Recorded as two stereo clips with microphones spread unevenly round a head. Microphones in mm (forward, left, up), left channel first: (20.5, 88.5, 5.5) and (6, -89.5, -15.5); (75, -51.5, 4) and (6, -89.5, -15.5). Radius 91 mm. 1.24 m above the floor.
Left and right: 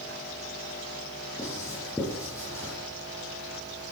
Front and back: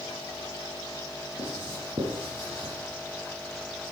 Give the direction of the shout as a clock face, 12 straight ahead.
I don't hear a shout.